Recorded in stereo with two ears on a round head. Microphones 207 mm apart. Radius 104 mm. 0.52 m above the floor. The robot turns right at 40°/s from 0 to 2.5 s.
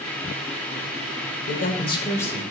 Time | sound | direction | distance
1.5 | a man speaking | 135° left | 1.9 m